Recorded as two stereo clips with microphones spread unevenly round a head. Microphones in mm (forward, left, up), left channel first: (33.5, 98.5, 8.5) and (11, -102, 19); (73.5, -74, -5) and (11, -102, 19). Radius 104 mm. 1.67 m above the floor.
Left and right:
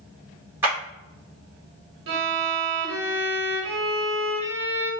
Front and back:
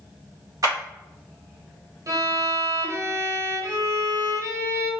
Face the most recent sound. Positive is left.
turn(degrees=-130)